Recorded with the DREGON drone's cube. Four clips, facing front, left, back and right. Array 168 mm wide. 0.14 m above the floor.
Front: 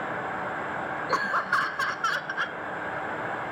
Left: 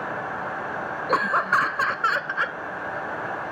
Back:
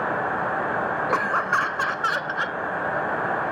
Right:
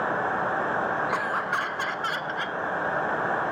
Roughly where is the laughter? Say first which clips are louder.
Left 5 dB, back 1 dB; behind left.